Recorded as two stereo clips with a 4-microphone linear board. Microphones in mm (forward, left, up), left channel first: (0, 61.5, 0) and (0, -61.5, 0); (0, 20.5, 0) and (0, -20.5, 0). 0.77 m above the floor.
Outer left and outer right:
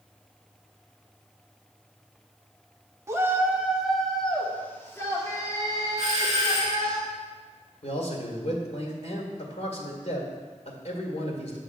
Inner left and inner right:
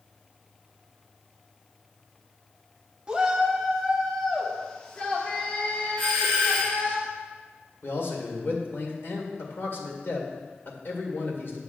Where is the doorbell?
30° left (ahead or behind), 2.5 m.